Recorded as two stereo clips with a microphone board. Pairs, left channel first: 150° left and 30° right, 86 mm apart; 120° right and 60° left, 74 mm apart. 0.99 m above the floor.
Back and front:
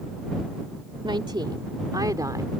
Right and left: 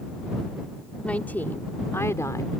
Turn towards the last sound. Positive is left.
turn(degrees=-80)